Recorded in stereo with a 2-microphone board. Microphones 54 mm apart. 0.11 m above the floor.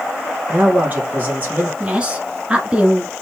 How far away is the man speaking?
About 3 m.